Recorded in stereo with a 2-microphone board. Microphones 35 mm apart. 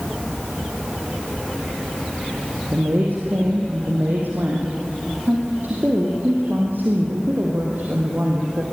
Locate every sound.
2.7 s a woman speaking: 70° right (ahead or behind), 4.5 m